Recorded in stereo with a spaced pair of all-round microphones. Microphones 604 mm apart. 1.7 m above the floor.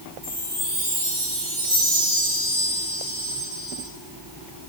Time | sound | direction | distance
0.2 | a chime | 15° left (ahead or behind) | 6.5 m